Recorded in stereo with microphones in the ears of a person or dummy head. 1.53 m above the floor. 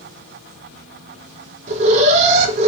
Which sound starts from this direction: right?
An alarm, at 1.7 s.